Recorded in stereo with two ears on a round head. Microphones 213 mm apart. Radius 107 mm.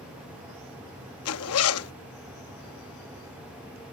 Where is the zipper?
65° left (ahead or behind).